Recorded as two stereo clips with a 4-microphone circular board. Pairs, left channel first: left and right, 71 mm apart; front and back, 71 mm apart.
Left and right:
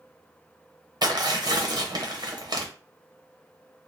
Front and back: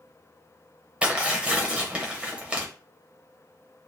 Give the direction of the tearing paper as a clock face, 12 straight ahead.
4 o'clock.